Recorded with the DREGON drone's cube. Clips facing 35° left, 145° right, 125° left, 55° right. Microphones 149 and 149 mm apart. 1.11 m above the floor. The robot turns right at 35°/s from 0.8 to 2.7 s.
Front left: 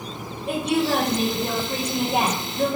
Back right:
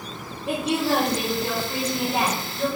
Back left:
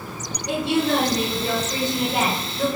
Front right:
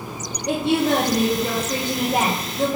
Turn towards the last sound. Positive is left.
turn(degrees=5)